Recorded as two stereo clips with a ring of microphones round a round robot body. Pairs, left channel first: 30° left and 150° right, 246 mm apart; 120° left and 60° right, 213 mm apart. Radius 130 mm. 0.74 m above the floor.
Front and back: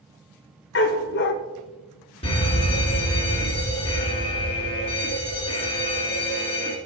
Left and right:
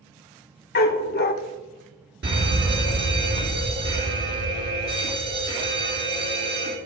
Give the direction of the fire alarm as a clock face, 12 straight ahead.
1 o'clock.